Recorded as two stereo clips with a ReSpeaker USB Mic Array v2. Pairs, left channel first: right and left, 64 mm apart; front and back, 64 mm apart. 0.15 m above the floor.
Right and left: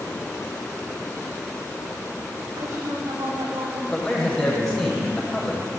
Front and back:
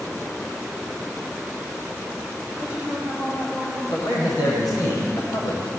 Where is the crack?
I don't hear a crack.